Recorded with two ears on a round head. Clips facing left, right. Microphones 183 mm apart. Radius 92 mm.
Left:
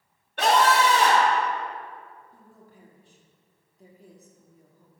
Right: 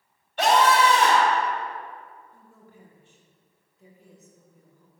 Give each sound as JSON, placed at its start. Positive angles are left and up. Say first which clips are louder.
{"t": 0.4, "sound": "a scream", "louder": "right 1 dB", "side_deg": 45, "distance_m": 1.9}
{"t": 2.3, "sound": "a woman speaking", "louder": "even", "side_deg": 35, "distance_m": 1.2}